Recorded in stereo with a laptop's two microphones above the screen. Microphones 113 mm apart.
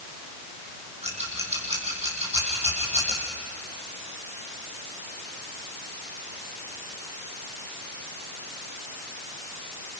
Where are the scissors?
70° right (ahead or behind), 6 m.